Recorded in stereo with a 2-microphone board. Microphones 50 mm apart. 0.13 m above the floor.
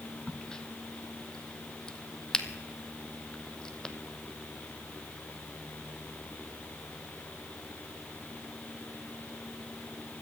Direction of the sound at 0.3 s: 15° left (ahead or behind).